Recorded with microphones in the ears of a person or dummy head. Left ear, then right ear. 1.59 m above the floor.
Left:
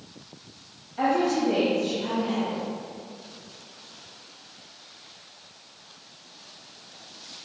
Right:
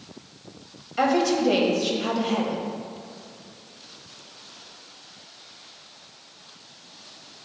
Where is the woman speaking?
65° right (ahead or behind), 1.1 m.